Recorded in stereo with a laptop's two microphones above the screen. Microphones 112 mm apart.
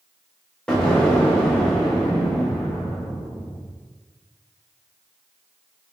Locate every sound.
0.7 s an explosion: 10° left (ahead or behind), 0.5 m